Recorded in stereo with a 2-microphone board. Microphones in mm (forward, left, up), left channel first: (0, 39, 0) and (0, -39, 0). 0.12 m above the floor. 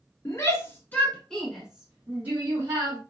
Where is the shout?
40° left (ahead or behind), 1.2 m; by 3.0 s 35° right (ahead or behind), 1.5 m.